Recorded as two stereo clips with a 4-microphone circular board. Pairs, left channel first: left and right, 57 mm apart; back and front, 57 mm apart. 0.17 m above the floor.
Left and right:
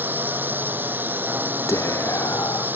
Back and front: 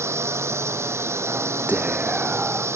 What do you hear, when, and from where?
0.0 s a drone: 35° right
1.7 s whispering: 65° left